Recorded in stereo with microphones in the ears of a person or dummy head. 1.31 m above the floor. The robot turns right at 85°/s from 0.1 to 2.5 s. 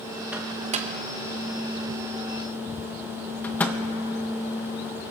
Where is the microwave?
Centre (ahead or behind), 0.6 m; by 3.8 s 5° left (ahead or behind), 0.6 m.